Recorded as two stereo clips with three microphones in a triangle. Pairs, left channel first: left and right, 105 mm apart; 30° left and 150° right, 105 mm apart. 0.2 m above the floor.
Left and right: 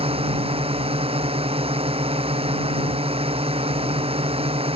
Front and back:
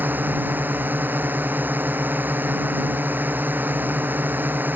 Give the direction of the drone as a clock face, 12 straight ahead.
3 o'clock.